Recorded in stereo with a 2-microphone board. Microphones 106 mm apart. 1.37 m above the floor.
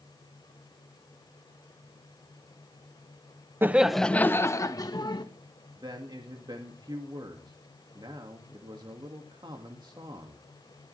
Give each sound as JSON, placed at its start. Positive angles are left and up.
{"t": 3.6, "sound": "laughter", "side_deg": -20, "distance_m": 0.8}
{"t": 5.8, "sound": "a man speaking", "side_deg": -45, "distance_m": 2.0}